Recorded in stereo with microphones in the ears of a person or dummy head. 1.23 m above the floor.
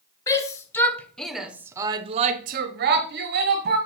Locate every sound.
0.3 s a shout: 15° left (ahead or behind), 1.3 m; by 3.8 s 50° right (ahead or behind), 1.3 m